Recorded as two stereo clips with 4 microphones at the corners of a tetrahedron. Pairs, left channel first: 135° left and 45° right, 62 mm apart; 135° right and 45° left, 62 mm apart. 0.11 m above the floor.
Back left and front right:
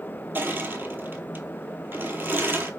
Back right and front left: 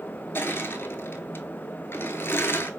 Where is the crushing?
90° right, 0.8 m.